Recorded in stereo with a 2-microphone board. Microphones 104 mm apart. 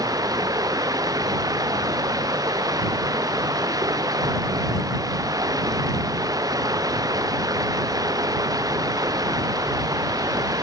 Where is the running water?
35° right (ahead or behind).